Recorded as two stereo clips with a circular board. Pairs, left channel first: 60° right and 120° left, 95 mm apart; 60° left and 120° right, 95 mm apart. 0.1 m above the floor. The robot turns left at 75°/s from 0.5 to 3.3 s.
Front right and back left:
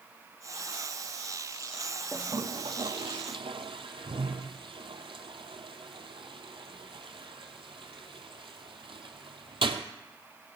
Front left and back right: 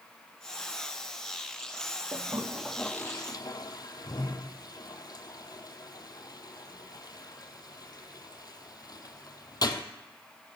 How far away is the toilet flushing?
About 0.7 m.